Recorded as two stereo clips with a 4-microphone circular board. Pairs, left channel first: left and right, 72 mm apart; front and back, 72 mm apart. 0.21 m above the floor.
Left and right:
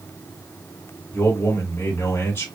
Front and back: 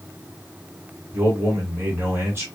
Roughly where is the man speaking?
Behind left.